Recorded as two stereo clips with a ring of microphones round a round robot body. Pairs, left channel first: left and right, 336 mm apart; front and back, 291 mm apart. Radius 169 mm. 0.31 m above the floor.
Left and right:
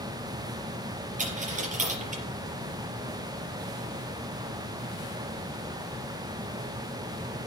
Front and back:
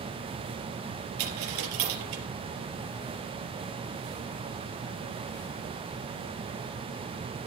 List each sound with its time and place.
1.2 s a dropped coin: 160° right, 4 m